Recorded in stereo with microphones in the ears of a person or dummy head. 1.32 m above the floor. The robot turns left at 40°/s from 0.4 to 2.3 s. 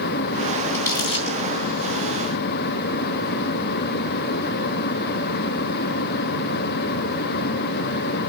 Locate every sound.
0.7 s crumpling: 10° left (ahead or behind), 2.5 m; by 1.4 s 30° left (ahead or behind), 2.5 m